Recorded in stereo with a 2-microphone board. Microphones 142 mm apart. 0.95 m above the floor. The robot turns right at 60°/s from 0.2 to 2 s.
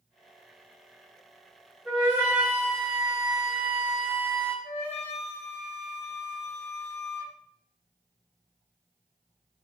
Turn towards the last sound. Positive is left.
turn(degrees=45)  # may be behind; listen again after turning